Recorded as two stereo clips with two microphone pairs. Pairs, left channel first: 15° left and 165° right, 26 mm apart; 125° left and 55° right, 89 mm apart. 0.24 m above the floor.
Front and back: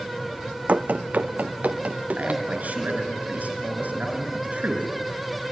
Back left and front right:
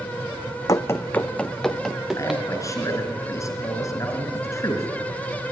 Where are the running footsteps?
Straight behind, 0.8 m; by 2.4 s 135° right, 2 m.